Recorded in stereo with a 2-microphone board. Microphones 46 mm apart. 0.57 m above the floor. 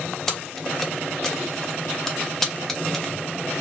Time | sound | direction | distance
0.3 | keys jangling | 5° left (ahead or behind) | 0.6 m